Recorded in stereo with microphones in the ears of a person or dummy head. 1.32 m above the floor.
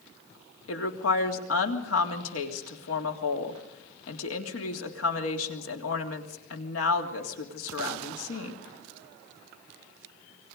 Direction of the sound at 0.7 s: 80° left.